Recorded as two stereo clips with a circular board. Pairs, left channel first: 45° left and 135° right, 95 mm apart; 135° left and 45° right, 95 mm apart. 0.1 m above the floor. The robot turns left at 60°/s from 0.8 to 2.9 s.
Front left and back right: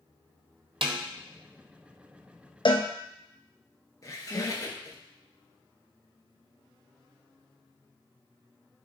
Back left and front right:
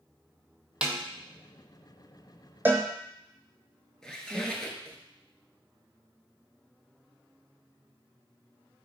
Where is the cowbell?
25° left, 0.6 m; by 2.9 s 10° left, 0.6 m.